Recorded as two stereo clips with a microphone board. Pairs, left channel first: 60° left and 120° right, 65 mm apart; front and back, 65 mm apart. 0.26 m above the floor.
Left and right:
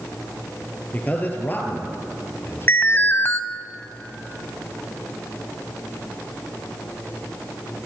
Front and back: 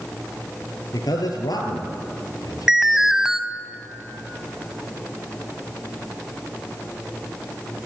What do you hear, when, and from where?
0.9 s a man speaking: 5° right, 4 m; by 3.2 s 15° left, 4.5 m
2.7 s an alarm: 100° left, 0.9 m